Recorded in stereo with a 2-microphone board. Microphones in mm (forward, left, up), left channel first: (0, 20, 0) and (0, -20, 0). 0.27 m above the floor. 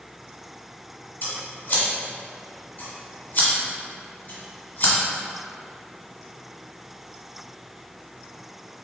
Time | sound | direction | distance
1.2 | scissors | 50° left (ahead or behind) | 1.6 m